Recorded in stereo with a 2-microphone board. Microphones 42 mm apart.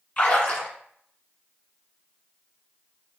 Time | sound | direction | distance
0.2 | a splash | 30° left (ahead or behind) | 1.8 m